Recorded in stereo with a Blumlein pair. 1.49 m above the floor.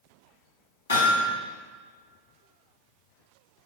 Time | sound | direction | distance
0.9 | hammering | 70° left | 3 m